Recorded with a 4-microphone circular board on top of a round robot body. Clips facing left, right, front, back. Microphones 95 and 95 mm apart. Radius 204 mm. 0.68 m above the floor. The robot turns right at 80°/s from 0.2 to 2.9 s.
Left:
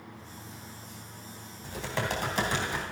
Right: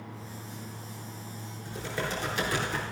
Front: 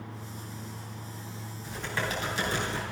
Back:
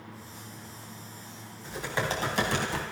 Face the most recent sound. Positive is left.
turn(degrees=-175)